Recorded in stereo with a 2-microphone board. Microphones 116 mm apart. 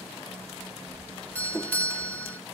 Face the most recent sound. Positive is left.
turn(degrees=15)  # may be behind; listen again after turning